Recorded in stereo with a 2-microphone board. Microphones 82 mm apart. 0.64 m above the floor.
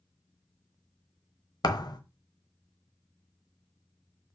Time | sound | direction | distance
1.6 | a thud | 60° left (ahead or behind) | 1.0 m